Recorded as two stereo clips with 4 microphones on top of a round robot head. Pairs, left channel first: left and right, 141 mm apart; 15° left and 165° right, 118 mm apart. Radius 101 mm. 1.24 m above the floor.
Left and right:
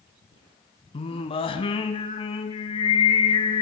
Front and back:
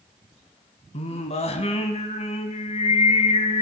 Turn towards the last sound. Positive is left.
turn(degrees=40)